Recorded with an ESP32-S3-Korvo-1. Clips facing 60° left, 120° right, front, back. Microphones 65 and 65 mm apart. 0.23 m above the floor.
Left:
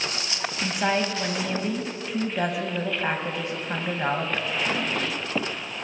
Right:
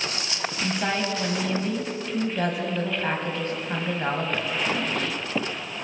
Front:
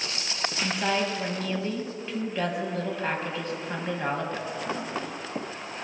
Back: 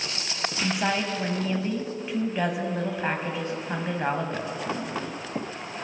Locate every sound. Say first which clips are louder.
0.6 s a woman speaking: left 2 dB, back 1 dB; 125° left, 1.0 m